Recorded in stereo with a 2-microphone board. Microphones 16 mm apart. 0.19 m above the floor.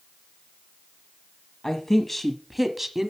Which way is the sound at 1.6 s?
25° left (ahead or behind).